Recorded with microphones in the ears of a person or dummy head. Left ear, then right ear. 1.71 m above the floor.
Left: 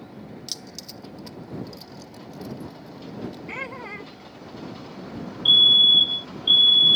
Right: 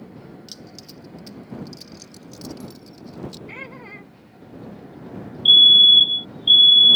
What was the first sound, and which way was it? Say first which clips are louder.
Keys jangling: left 8 dB; 20° left (ahead or behind).